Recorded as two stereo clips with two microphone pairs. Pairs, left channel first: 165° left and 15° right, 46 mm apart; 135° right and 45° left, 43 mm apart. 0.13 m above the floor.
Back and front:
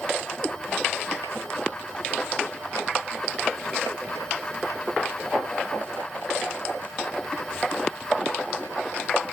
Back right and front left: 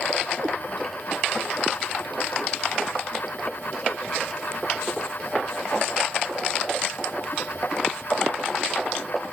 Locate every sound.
0.4 s a cat meowing: 85° left, 2 m